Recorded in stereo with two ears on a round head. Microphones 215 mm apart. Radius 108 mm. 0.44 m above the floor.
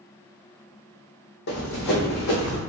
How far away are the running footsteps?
About 0.8 m.